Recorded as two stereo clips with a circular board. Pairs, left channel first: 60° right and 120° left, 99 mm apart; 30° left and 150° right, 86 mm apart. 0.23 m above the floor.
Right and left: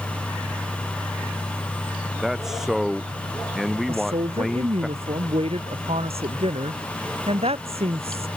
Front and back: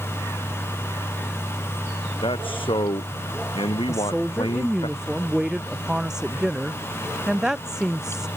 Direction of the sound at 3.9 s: 125° left.